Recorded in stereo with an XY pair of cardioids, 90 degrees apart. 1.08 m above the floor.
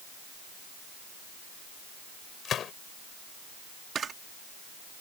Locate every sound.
2.5 s a gunshot: 65° left
4.0 s a camera shutter: 55° right